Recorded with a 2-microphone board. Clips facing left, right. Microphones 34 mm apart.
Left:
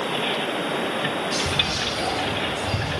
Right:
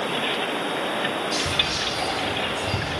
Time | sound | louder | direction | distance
1.3 | whispering | even | 40° right (ahead or behind) | 2 m